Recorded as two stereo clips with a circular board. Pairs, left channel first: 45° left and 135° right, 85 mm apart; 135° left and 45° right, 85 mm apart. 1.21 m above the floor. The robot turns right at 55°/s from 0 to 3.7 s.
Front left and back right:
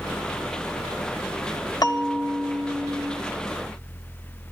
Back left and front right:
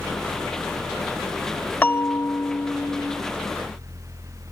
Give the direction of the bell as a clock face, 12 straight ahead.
10 o'clock.